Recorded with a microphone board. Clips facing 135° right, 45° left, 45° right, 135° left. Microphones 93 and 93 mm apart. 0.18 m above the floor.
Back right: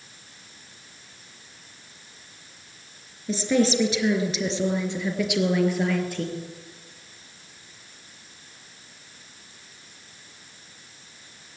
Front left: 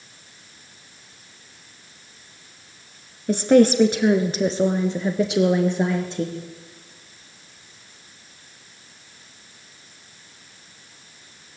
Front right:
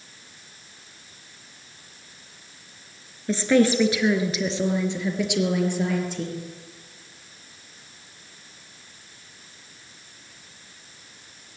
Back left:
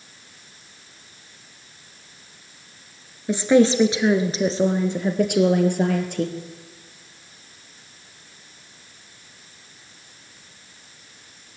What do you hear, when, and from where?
3.3 s a woman speaking: 60° left, 2.5 m; by 6.4 s 110° left, 3.5 m